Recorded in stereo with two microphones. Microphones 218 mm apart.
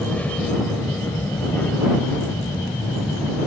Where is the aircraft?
5° left (ahead or behind); by 3.5 s 10° left (ahead or behind).